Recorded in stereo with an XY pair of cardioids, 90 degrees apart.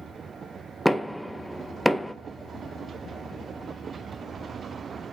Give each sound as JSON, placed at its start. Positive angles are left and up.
{"t": 0.8, "sound": "knocking", "azimuth_deg": 0, "distance_m": 0.5}